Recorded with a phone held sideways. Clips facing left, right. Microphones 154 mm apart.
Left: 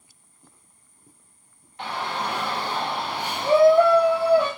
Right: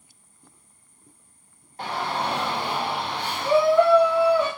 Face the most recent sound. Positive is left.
turn(degrees=55)  # may be behind; listen again after turning